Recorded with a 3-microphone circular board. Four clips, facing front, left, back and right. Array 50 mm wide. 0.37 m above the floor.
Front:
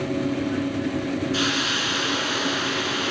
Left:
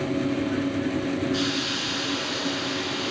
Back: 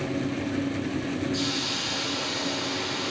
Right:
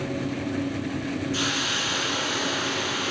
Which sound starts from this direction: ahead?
A hiss, at 1.3 s.